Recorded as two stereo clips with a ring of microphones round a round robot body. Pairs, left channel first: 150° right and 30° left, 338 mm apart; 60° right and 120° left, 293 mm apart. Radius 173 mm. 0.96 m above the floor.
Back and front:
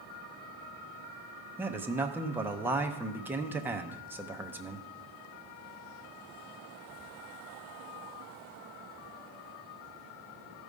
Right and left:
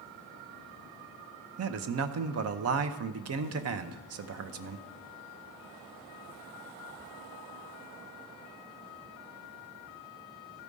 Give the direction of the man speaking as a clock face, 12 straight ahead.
8 o'clock.